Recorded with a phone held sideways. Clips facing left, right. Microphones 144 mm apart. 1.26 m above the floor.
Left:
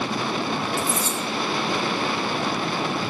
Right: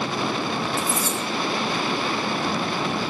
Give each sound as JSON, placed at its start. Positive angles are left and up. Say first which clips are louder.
{"t": 0.8, "sound": "cutlery clinking", "louder": "even", "side_deg": 30, "distance_m": 2.0}